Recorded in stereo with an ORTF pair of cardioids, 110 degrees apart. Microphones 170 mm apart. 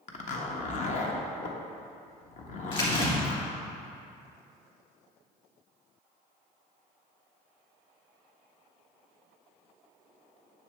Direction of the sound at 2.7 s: 30° left.